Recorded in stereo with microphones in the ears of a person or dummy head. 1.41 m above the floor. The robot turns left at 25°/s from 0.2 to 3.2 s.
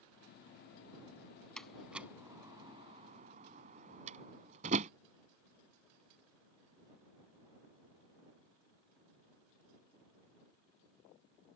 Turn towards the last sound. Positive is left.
turn(degrees=-40)  # may be behind; listen again after turning